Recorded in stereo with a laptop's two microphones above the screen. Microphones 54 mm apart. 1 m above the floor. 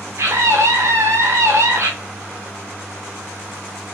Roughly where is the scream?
Right.